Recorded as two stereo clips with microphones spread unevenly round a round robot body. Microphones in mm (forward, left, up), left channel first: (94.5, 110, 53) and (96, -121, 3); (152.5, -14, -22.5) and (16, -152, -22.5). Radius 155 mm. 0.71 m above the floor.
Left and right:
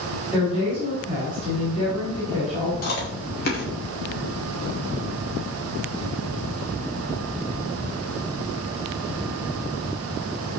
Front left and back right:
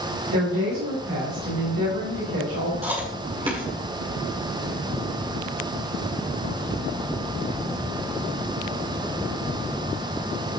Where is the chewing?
150° left, 1.8 m.